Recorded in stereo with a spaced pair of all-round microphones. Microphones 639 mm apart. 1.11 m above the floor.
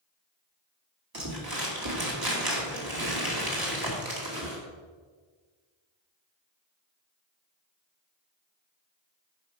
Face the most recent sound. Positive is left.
turn(degrees=-35)  # may be behind; listen again after turning